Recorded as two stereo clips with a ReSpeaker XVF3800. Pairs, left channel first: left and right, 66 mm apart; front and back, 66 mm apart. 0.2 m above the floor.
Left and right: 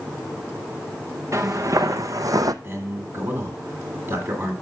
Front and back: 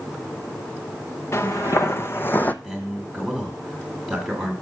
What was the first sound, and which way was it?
Footsteps, 45° right.